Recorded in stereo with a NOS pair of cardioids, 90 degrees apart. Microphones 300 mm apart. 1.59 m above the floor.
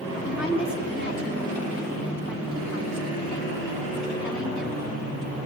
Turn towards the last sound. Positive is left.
turn(degrees=40)